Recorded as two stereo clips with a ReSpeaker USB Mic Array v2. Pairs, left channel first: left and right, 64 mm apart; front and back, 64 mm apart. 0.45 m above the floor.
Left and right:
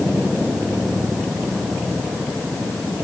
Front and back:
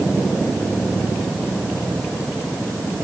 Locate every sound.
Only background noise.